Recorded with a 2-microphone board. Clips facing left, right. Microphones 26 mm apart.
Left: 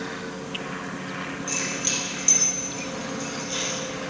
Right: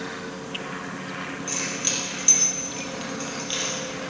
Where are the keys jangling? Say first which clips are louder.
Left 1 dB; 5° right (ahead or behind), 2.5 m; by 3.8 s 45° right (ahead or behind), 2.5 m.